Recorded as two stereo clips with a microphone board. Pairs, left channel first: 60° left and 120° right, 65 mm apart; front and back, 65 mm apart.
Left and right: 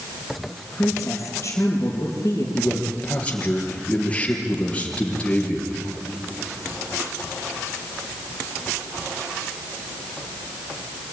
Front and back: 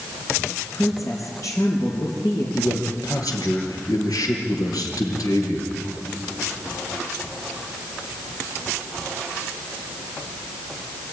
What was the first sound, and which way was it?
A woman speaking, 5° left.